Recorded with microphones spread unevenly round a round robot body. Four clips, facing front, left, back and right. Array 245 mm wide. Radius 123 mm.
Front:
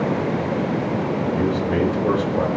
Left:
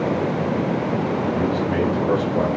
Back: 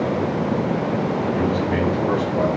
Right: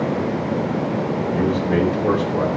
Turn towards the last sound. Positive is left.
turn(degrees=-55)